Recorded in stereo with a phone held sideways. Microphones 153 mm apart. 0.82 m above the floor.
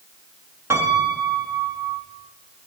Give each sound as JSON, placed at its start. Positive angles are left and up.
{"t": 0.7, "sound": "a piano", "side_deg": -15, "distance_m": 1.1}